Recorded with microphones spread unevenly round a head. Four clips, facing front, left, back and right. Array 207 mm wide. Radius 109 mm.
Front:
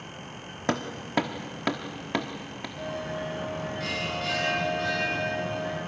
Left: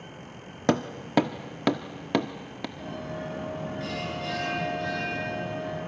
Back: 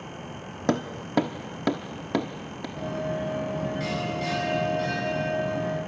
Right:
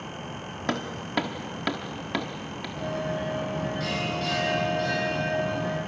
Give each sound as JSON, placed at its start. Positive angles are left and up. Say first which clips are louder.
{"t": 0.7, "sound": "hammering", "louder": "left 5 dB, back 3 dB", "azimuth_deg": 110, "distance_m": 1.0}
{"t": 2.8, "sound": "a bell", "louder": "right 8 dB, back 4 dB", "azimuth_deg": -160, "distance_m": 6.0}